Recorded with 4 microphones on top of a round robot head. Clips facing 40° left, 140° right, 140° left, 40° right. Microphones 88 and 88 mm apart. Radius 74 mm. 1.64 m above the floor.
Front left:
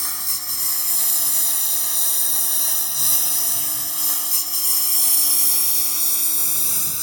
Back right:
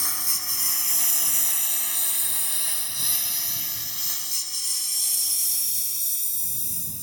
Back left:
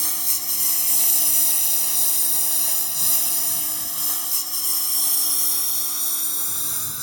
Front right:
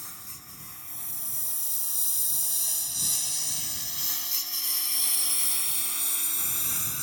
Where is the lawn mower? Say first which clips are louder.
Front left 1 dB, back left 11 dB; 130° left; by 7.0 s 65° left.